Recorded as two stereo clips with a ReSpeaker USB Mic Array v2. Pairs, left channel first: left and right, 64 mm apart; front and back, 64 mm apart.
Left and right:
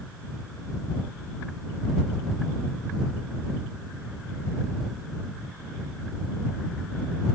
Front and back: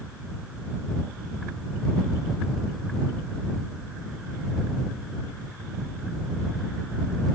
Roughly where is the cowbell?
I don't hear a cowbell.